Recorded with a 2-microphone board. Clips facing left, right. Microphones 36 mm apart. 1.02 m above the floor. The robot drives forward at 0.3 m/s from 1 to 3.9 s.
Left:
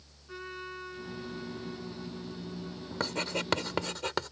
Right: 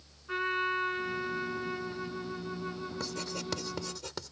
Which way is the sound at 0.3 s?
50° right (ahead or behind).